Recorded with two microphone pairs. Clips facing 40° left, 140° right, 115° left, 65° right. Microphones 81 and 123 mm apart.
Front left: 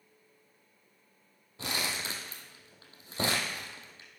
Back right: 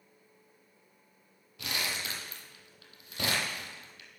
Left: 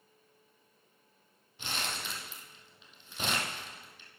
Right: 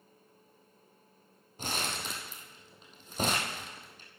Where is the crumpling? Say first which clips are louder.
Front left 1 dB, right 3 dB; 15° right, 2 m.